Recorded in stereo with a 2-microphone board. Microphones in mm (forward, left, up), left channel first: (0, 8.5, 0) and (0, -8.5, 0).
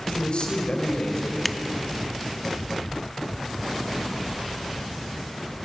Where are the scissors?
5° left (ahead or behind), 0.5 m.